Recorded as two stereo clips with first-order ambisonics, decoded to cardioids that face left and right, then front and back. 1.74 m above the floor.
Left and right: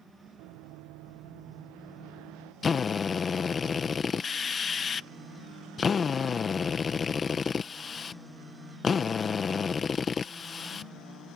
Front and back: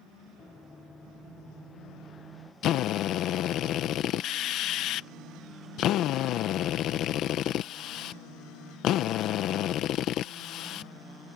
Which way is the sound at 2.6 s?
25° left.